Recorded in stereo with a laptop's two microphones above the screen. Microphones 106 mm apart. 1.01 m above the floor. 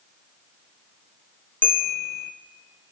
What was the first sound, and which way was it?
A bell, 15° left (ahead or behind).